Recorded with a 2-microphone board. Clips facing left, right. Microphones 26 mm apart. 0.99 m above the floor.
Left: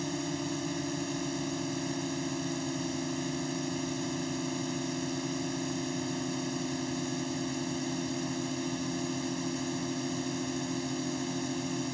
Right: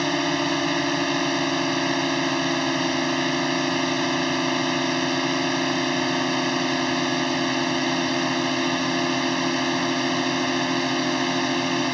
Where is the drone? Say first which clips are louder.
Right 12 dB; 60° right (ahead or behind).